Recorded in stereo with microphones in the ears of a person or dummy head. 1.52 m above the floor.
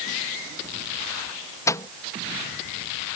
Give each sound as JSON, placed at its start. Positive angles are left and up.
{"t": 1.7, "sound": "a microwave", "side_deg": 10}